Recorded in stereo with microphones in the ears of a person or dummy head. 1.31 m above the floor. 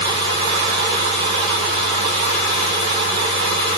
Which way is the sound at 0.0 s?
30° right (ahead or behind).